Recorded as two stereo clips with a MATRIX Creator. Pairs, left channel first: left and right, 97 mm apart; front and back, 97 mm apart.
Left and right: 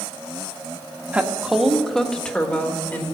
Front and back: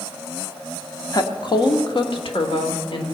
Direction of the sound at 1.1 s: 20° right.